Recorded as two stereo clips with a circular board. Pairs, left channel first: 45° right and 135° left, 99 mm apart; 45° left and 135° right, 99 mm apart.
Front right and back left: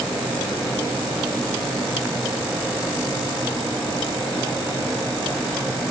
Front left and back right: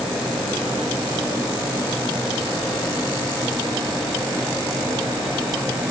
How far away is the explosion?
I don't hear an explosion.